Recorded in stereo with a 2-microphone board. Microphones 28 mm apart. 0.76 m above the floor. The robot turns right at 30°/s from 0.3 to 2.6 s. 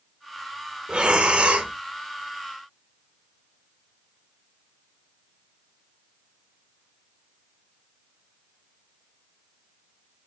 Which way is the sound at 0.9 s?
40° right (ahead or behind).